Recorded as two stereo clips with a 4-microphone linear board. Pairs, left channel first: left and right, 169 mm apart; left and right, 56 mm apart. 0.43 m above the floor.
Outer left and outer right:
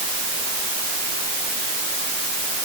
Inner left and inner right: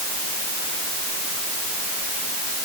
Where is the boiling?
I don't hear boiling.